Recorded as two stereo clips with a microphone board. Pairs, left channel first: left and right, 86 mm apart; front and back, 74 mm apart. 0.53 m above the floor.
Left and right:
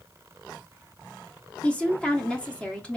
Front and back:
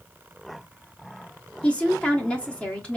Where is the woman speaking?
40° left, 1.1 m.